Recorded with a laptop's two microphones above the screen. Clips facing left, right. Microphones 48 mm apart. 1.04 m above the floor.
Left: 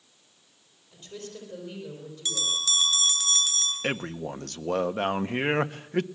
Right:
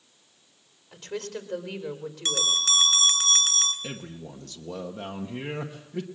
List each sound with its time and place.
0.9 s a woman speaking: 75° right (ahead or behind), 4 m
2.2 s a bell: 55° right (ahead or behind), 2.5 m
3.8 s a man speaking: 60° left (ahead or behind), 1.1 m